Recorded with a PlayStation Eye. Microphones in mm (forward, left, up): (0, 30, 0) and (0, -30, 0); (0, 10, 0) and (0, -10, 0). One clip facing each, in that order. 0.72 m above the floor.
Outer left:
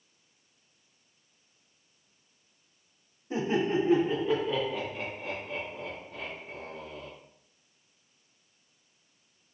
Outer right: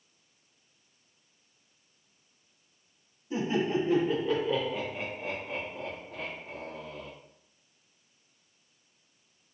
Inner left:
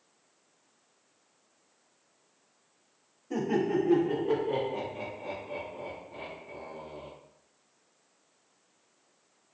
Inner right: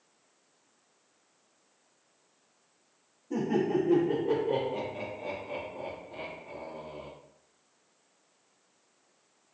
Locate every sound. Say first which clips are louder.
3.3 s laughter: outer left 1 dB, even; 35° left (ahead or behind), 1.3 m; by 7.1 s 60° right (ahead or behind), 1.7 m